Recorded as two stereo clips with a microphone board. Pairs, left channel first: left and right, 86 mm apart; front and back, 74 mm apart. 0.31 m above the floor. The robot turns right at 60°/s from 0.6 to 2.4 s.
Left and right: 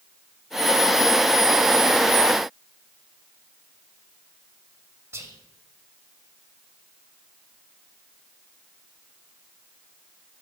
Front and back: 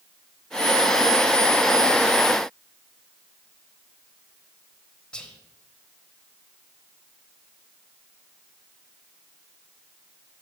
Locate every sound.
5.1 s whispering: 70° right, 1.0 m